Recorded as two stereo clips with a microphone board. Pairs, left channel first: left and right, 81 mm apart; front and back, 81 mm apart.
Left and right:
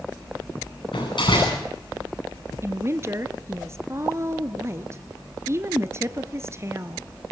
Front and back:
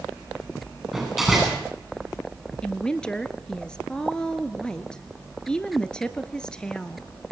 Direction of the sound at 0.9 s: 90° left.